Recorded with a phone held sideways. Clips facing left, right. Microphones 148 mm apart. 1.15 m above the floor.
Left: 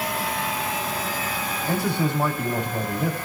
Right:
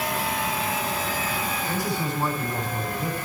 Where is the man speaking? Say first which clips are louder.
Left 8 dB; 65° left (ahead or behind), 6.5 m.